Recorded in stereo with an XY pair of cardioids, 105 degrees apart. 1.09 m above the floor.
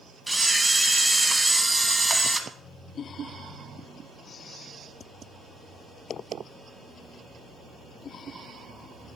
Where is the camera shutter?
15° right, 1.2 m.